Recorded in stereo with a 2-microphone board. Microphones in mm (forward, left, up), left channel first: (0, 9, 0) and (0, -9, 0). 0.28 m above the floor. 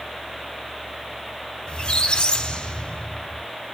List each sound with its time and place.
1.7 s a squeak: 55° left (ahead or behind), 1.2 m